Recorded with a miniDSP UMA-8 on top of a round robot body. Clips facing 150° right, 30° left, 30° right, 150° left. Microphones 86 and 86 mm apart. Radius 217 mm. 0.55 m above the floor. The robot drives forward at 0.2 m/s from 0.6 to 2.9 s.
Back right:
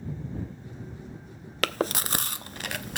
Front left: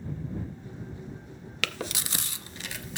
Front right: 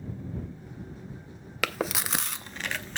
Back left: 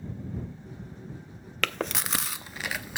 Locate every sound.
1.6 s chewing: 110° right, 0.6 m; by 3.0 s 130° right, 0.7 m